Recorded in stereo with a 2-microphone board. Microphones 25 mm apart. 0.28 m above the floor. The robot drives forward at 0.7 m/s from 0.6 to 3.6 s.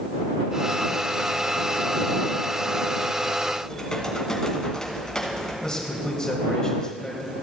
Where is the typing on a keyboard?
30° left (ahead or behind), 2.5 m.